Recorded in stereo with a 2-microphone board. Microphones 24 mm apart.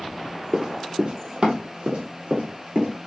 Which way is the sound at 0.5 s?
30° right (ahead or behind).